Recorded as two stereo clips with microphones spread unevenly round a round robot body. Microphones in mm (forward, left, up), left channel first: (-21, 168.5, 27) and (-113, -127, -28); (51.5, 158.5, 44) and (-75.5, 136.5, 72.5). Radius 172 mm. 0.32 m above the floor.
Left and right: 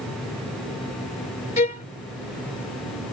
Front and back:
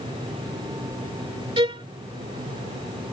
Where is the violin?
140° left.